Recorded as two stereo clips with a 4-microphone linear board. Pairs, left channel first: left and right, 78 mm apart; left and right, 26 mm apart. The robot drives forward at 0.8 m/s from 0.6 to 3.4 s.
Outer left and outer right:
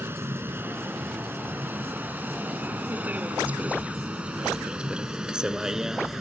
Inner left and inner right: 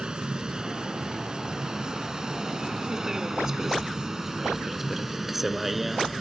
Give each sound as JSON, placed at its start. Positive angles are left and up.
{"t": 0.0, "sound": "a vehicle", "side_deg": -30}